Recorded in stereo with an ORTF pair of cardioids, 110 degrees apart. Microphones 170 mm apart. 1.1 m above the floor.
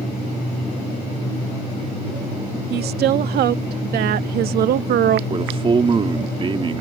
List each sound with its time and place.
2.7 s a woman speaking: 70° right; by 5.2 s 65° right
5.3 s a man speaking: 30° right